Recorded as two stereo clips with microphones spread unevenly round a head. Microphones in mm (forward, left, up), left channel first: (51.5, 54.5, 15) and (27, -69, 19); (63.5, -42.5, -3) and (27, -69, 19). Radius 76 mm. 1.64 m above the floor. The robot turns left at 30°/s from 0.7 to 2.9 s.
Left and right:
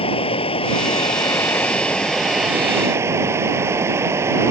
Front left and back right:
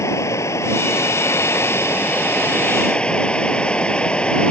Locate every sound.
0.0 s running water: 35° left; by 4.5 s 30° right